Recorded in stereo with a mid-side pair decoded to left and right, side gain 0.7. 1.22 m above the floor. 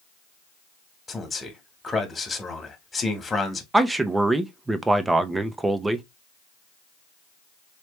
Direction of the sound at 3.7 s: 15° right.